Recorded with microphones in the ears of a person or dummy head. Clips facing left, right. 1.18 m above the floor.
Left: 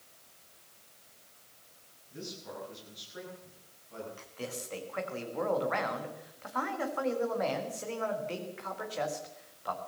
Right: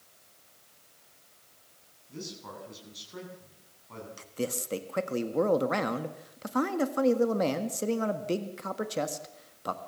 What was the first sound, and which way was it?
A man speaking, 85° right.